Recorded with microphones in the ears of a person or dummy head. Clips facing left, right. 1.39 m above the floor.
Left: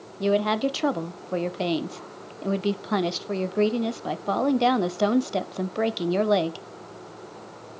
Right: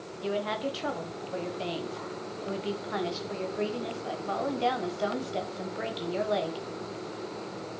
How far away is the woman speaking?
About 0.5 m.